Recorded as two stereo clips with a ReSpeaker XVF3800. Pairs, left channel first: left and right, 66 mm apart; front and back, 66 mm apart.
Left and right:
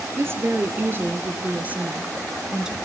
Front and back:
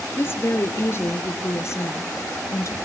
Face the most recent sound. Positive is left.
turn(degrees=-15)